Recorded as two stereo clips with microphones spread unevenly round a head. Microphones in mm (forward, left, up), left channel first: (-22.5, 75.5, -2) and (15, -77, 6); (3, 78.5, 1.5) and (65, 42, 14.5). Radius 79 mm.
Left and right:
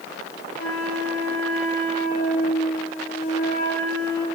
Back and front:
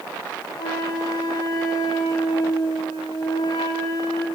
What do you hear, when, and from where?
0.6 s a flute: 135° left, 3.5 m